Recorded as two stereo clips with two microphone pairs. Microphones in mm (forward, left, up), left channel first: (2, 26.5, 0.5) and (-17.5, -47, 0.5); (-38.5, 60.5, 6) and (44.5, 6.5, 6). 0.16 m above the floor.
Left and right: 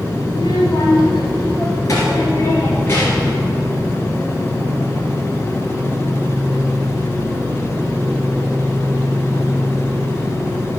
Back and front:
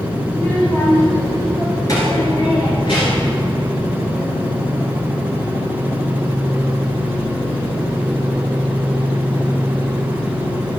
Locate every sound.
0.3 s a child speaking: 70° left, 3 m; by 3.4 s 135° left, 2.5 m